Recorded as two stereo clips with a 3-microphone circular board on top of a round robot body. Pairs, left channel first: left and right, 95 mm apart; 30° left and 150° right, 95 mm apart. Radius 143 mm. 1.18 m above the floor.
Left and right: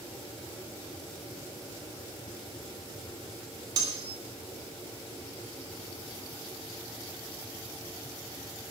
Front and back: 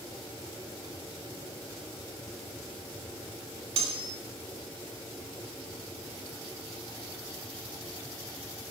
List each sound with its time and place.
3.8 s cutlery clinking: 140° right, 3 m